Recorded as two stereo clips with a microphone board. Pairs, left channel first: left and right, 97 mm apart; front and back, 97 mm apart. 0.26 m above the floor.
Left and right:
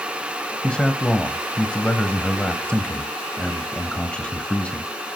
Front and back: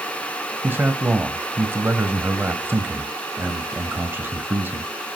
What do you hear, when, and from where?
0.6 s a man speaking: 155° left, 0.9 m